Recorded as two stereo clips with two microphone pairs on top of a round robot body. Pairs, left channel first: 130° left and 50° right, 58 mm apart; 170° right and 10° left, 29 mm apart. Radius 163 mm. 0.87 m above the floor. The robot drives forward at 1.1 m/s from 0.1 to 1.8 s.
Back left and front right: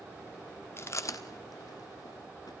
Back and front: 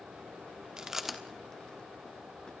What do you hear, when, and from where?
0.8 s chewing: 80° left, 1.4 m; by 2.5 s 125° left, 1.6 m